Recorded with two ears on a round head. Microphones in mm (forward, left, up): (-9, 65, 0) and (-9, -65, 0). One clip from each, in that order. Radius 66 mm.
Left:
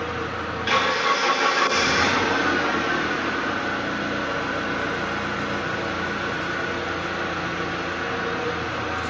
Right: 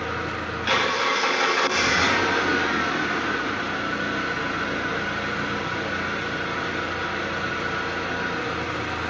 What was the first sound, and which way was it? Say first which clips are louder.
An engine running: even; 10° right (ahead or behind).